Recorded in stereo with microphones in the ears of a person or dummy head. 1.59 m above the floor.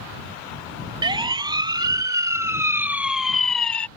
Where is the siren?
15° right (ahead or behind); by 3.9 s 20° left (ahead or behind).